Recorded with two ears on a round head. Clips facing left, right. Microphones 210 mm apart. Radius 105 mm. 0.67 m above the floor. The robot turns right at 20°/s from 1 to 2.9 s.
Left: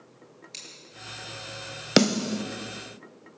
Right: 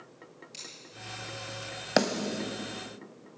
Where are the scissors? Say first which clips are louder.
Even; 30° left (ahead or behind), 8.5 m.